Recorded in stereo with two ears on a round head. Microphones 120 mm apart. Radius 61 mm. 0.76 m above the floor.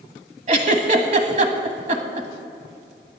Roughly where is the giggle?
Right.